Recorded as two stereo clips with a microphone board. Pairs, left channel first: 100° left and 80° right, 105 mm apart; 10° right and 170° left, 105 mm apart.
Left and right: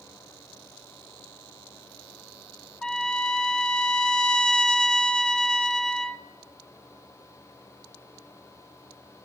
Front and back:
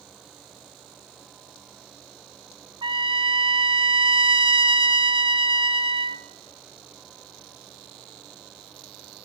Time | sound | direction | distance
2.8 | a trumpet | 175° right | 1.0 m